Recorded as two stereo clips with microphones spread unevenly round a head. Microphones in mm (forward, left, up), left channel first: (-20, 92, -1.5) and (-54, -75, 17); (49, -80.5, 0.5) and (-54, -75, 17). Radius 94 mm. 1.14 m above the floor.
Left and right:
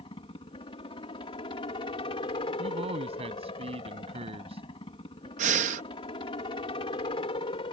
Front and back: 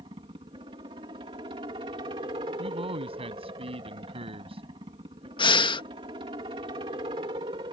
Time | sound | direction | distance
0.0 | a helicopter | 130° left | ?
2.6 | a man speaking | 155° right | ?
5.4 | breathing | 45° right | ?